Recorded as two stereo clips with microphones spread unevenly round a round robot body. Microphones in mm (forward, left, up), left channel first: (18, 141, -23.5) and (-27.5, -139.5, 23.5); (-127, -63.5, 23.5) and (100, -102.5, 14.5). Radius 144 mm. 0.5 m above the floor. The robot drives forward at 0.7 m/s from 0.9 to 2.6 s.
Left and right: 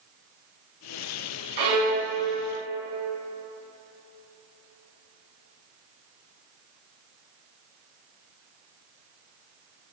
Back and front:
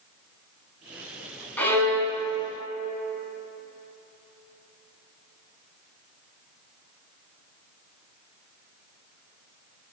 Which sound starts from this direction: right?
A violin, at 1.6 s.